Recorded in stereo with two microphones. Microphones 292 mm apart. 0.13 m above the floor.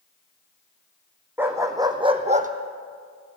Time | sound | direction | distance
1.4 | a dog barking | 5° right (ahead or behind) | 2.5 m